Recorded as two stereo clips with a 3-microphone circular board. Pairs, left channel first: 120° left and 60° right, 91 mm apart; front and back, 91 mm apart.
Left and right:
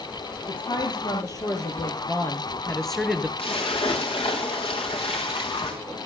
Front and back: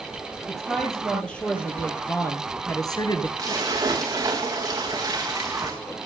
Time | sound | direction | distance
0.5 | a woman speaking | 85° left | 4.5 m
3.4 | a splash | 130° left | 4.5 m